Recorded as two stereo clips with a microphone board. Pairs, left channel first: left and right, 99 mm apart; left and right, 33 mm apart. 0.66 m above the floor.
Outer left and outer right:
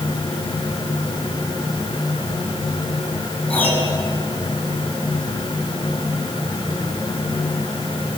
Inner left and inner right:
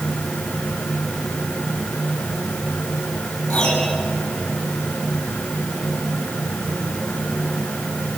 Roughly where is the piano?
Centre.